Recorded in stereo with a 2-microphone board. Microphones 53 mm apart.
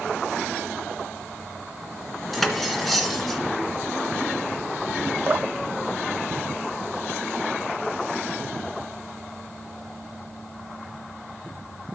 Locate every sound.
2.3 s cutlery clinking: centre (ahead or behind), 1.6 m
5.3 s dripping: 35° right (ahead or behind), 0.6 m